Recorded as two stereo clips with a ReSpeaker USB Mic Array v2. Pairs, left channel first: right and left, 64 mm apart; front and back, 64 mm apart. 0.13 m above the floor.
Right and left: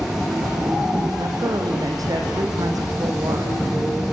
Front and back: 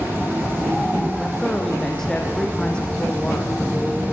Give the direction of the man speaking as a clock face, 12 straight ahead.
9 o'clock.